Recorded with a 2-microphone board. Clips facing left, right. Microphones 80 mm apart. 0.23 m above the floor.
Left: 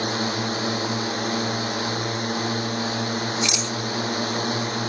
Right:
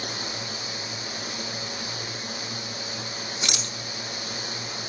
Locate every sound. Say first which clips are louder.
0.0 s a drone: left 10 dB; 55° left (ahead or behind)
3.4 s a rattle: left 7 dB; 50° right (ahead or behind)